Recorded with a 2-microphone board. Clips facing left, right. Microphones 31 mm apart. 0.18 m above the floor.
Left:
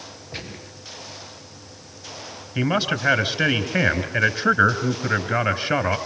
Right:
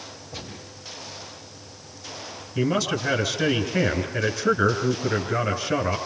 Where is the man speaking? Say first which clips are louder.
Left 2 dB; 45° left (ahead or behind), 3 m.